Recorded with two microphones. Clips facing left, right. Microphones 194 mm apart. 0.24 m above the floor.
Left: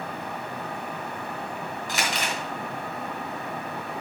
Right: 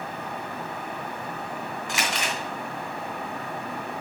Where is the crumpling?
40° left (ahead or behind), 2 m.